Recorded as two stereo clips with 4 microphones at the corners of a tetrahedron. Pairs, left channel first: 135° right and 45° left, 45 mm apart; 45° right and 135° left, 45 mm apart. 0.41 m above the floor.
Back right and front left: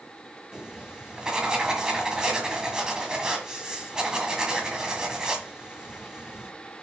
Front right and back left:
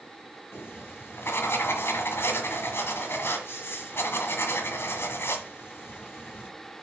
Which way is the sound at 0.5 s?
25° right.